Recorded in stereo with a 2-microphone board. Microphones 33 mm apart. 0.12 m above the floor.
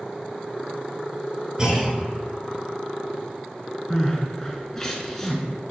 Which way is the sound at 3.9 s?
15° left (ahead or behind).